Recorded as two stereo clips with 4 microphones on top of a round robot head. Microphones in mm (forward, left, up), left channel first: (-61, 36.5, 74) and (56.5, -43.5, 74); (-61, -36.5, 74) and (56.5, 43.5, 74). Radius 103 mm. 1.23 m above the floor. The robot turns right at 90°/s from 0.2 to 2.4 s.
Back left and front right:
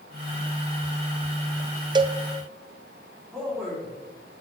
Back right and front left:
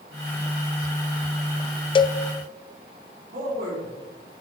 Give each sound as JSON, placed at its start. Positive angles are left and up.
{"t": 1.9, "sound": "a cowbell", "azimuth_deg": -95, "distance_m": 0.5}
{"t": 3.3, "sound": "a man speaking", "azimuth_deg": 60, "distance_m": 4.0}